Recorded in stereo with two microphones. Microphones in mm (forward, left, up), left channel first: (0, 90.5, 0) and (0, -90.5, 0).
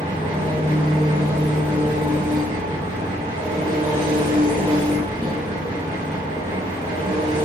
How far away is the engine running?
About 1.3 m.